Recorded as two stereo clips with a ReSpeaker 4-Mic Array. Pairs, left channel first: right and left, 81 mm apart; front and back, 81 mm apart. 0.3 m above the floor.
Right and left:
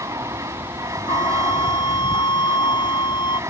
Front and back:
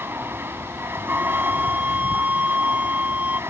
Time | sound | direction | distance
0.0 | an aircraft | 125° left | ?
1.1 | a flute | 110° right | ?